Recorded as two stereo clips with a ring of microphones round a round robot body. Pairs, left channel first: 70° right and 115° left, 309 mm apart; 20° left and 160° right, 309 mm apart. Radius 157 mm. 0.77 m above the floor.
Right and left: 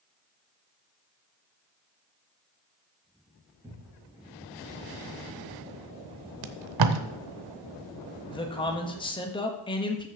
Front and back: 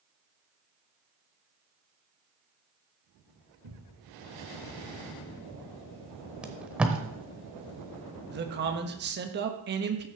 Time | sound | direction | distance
3.6 | a cupboard door | 165° right | 3.5 m
6.4 | tape being pulled | 115° left | 0.8 m
8.3 | a man speaking | 130° right | 1.2 m